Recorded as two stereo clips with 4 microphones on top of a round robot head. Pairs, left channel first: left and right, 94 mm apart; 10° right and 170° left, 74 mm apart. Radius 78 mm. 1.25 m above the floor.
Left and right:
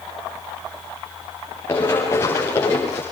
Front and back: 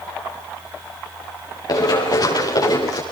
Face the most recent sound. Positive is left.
turn(degrees=25)